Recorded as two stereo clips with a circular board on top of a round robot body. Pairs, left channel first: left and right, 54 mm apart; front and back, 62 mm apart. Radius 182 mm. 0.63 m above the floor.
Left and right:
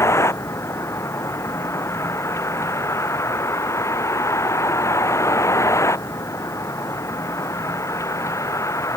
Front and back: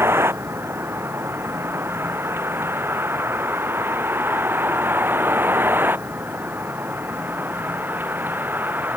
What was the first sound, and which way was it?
A vehicle, 125° left.